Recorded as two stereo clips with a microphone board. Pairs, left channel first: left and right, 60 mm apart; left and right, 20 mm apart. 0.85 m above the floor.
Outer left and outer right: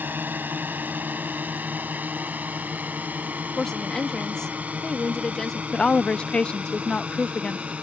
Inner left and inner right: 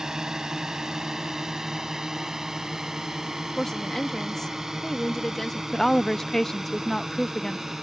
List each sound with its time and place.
0.0 s a drone: 30° right (ahead or behind); by 7.8 s 20° right (ahead or behind)
3.6 s a woman speaking: 10° left (ahead or behind)
5.7 s a woman speaking: 15° left (ahead or behind)